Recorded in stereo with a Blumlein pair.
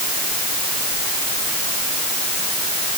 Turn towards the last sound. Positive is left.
No sound to turn to.